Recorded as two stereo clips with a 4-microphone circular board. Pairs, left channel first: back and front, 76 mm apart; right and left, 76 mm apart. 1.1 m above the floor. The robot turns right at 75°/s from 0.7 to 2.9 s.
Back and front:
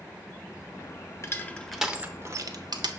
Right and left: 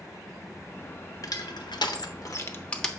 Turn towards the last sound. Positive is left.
turn(degrees=-5)